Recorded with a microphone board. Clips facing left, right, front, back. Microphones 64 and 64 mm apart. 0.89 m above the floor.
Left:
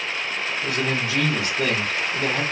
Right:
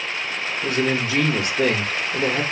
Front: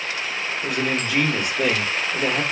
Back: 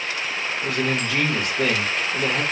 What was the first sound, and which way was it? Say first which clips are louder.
A man speaking: right 4 dB, even; 85° right.